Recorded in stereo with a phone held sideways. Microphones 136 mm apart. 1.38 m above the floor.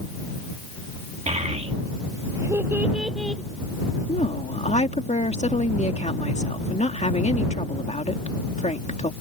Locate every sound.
1.3 s a child speaking: 55° right (ahead or behind); by 3.4 s 5° left (ahead or behind)
4.1 s a woman speaking: 55° left (ahead or behind)